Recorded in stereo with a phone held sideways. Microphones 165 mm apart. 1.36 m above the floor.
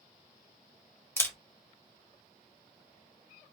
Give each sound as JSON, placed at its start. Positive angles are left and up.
{"t": 1.2, "sound": "a camera shutter", "side_deg": 15, "distance_m": 0.8}